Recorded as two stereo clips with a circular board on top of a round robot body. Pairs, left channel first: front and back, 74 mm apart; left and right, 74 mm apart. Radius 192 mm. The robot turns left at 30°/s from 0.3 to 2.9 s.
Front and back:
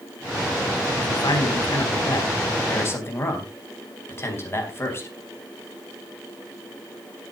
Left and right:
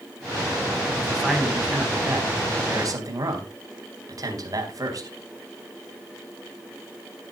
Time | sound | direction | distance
1.0 | a man speaking | 5° left | 4.5 m